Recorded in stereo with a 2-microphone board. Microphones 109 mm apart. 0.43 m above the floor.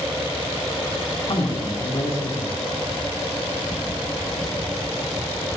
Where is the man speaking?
70° left (ahead or behind), 2.5 m.